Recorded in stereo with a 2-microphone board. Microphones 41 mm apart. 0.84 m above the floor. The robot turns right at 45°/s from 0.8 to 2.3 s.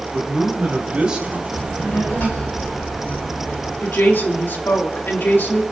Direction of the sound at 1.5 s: 25° left.